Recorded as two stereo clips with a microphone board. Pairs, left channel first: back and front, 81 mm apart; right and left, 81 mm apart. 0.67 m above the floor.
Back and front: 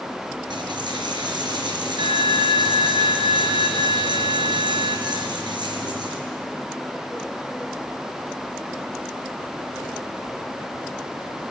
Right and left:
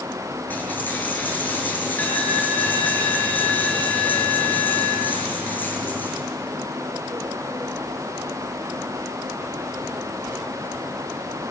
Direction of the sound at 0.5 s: 25° right.